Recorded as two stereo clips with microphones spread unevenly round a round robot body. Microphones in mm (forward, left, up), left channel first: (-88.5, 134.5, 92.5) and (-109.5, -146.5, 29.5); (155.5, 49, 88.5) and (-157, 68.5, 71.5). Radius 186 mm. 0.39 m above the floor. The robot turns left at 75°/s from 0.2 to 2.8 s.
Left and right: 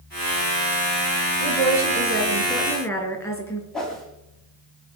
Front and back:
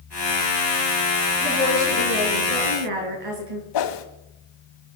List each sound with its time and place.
1.4 s a woman speaking: 85° right, 6 m; by 3.6 s 170° left, 6 m
3.7 s a whoosh: 5° right, 2 m